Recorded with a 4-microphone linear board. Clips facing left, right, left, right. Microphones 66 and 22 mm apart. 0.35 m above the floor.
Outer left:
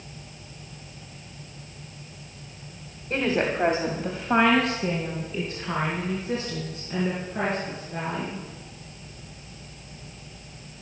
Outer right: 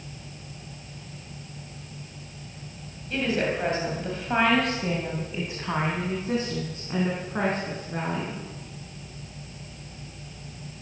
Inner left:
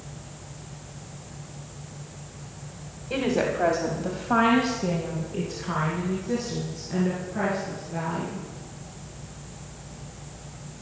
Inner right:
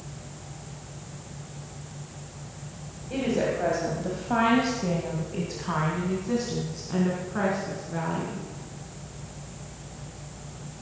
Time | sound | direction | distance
3.1 | a woman speaking | 40° left (ahead or behind) | 1.6 m